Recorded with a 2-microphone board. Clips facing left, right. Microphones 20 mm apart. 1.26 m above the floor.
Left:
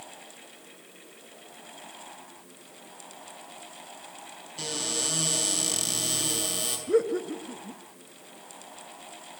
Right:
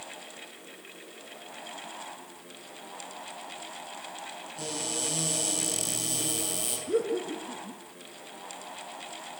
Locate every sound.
4.6 s a cupboard door: 35° left (ahead or behind), 8 m
6.9 s laughter: 30° left (ahead or behind), 1.9 m